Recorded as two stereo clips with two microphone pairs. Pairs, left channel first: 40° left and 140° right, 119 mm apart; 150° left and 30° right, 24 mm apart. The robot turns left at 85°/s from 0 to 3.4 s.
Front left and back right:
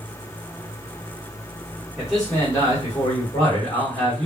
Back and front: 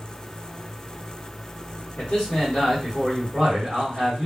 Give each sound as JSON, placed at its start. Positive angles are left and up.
{"t": 2.0, "sound": "a man speaking", "azimuth_deg": 150, "distance_m": 1.5}